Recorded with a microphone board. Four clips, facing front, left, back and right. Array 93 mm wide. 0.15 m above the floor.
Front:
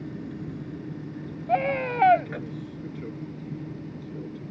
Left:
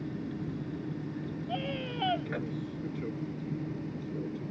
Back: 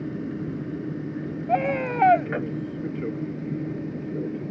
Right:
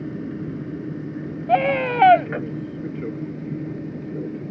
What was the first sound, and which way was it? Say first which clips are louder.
An aircraft: right 7 dB, back 5 dB; 130° right.